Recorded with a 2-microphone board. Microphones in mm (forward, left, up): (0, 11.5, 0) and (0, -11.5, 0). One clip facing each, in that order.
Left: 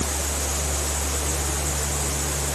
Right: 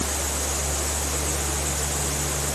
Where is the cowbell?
I don't hear a cowbell.